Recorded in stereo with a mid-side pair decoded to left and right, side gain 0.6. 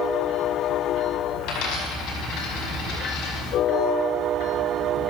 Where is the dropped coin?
70° left, 6 m.